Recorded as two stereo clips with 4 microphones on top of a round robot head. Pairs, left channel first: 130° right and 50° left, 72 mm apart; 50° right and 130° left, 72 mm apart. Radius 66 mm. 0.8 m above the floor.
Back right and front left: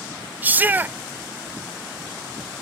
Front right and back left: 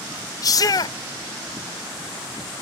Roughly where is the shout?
Ahead.